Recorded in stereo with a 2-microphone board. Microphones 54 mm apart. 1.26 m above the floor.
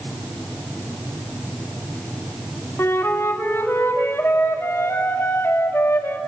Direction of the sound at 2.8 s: 50° left (ahead or behind).